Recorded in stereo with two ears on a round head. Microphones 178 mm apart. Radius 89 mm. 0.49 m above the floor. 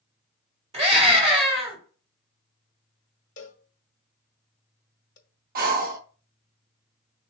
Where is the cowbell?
40° left (ahead or behind), 0.7 m.